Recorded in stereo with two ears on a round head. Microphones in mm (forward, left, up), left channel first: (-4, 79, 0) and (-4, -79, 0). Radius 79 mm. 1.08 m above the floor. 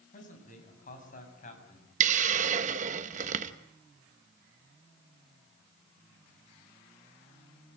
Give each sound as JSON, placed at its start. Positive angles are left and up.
{"t": 0.1, "sound": "a man speaking", "side_deg": 45, "distance_m": 7.0}
{"t": 2.0, "sound": "a hiss", "side_deg": -45, "distance_m": 0.9}